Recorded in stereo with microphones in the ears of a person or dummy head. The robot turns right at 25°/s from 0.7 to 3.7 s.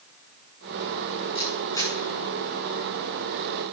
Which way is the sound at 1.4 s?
30° left (ahead or behind).